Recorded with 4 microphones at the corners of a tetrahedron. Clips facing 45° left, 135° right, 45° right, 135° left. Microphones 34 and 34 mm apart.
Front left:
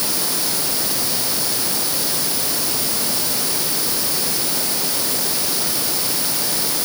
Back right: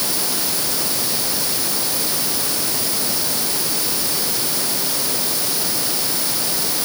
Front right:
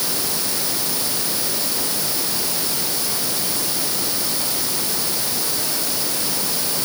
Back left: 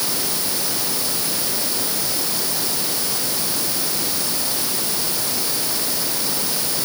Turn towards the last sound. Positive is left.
No sound to turn to.